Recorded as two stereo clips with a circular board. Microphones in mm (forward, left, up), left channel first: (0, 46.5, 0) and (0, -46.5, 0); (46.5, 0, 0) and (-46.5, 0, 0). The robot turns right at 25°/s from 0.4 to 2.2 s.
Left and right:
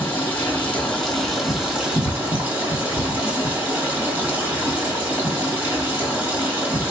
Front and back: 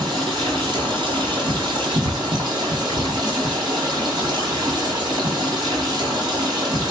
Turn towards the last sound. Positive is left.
turn(degrees=-155)